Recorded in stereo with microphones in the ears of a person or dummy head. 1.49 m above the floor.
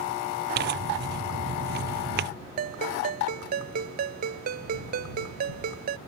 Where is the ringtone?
55° right (ahead or behind).